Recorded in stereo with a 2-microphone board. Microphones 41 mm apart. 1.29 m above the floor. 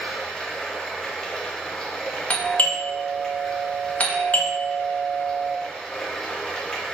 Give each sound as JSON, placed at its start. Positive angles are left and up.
{"t": 0.0, "sound": "running water", "side_deg": 15, "distance_m": 1.1}
{"t": 2.3, "sound": "a doorbell", "side_deg": 35, "distance_m": 0.6}